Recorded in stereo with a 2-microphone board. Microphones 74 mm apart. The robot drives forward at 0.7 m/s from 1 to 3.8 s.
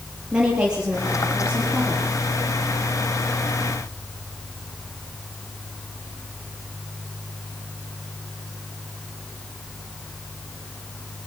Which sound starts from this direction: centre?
A woman speaking, at 0.3 s.